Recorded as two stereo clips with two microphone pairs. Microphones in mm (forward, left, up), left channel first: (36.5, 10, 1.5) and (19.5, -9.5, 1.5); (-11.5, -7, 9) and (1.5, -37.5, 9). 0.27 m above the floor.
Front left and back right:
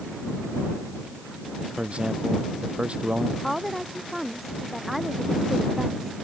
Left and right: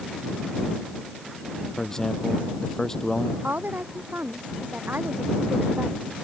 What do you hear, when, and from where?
1.8 s a man speaking: 170° right
3.4 s a woman speaking: 45° right